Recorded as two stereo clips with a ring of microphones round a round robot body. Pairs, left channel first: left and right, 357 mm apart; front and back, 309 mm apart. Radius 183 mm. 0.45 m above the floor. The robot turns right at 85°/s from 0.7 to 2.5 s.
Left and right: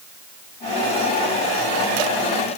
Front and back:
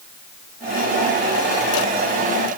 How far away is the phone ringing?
No phone ringing in this recording.